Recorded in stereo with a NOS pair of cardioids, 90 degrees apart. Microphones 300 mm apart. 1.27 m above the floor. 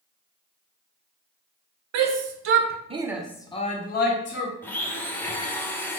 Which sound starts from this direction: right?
A shout, at 1.9 s.